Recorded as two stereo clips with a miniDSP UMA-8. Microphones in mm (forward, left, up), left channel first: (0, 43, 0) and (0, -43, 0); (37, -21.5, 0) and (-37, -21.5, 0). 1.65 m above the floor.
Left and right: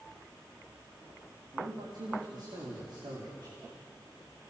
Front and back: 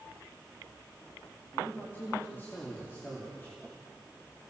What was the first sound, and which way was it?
A man speaking, 65° right.